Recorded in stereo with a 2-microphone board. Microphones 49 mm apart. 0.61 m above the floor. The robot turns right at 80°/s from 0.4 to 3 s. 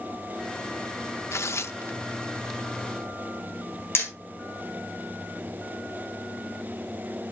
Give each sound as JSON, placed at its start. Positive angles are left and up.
{"t": 1.3, "sound": "tearing paper", "side_deg": 65, "distance_m": 0.5}
{"t": 4.0, "sound": "hammering", "side_deg": 55, "distance_m": 3.5}